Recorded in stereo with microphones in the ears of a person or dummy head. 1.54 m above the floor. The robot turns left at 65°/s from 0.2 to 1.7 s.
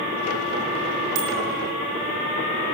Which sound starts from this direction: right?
A bicycle bell, at 1.1 s.